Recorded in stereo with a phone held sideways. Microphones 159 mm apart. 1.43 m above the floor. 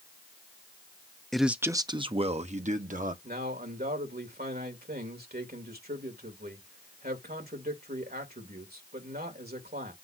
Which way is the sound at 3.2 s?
80° right.